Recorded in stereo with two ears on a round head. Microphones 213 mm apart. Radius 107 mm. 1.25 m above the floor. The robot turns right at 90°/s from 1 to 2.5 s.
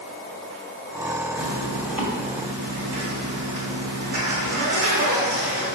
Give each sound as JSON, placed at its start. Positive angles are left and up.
{"t": 1.4, "sound": "a zipper", "azimuth_deg": 130, "distance_m": 2.5}